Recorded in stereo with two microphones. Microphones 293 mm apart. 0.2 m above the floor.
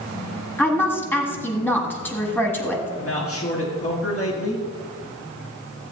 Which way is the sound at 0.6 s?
5° left (ahead or behind).